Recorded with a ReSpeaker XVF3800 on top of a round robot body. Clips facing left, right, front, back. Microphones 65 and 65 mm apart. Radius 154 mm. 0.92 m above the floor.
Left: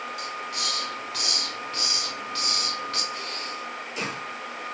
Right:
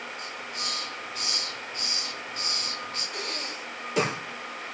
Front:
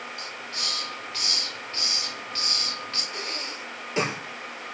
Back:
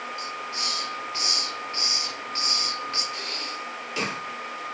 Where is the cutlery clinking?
No cutlery clinking in this recording.